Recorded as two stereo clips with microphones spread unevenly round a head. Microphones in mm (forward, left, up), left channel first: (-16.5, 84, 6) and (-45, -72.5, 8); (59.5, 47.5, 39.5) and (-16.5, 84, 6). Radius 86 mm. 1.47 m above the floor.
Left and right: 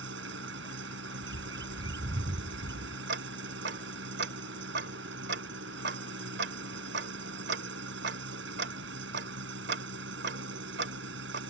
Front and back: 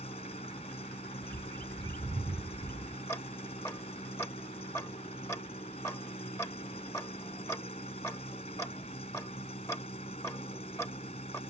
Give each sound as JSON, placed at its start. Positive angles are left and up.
{"t": 0.0, "sound": "an engine running", "azimuth_deg": -75}
{"t": 1.2, "sound": "a bird", "azimuth_deg": -165}
{"t": 3.1, "sound": "ticking", "azimuth_deg": -85}